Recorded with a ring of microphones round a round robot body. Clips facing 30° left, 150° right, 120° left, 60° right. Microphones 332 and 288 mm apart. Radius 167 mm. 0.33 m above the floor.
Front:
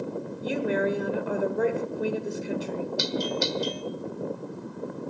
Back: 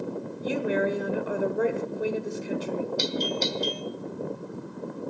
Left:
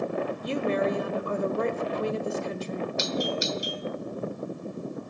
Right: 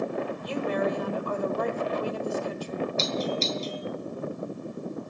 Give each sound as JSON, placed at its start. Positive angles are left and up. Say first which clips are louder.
{"t": 0.4, "sound": "a woman speaking", "louder": "even, left 2 dB", "azimuth_deg": 125, "distance_m": 1.2}
{"t": 3.0, "sound": "a doorbell", "louder": "even, even", "azimuth_deg": 75, "distance_m": 1.3}